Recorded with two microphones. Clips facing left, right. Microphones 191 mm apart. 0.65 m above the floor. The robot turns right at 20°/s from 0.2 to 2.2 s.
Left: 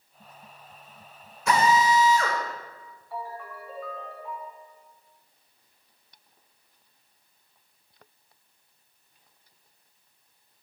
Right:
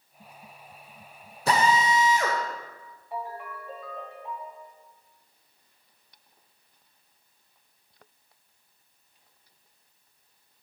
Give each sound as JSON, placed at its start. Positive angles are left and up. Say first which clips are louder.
{"t": 1.5, "sound": "a drill", "louder": "left 2 dB", "side_deg": -35, "distance_m": 1.0}
{"t": 3.1, "sound": "a ringtone", "louder": "right 1 dB", "side_deg": -20, "distance_m": 2.0}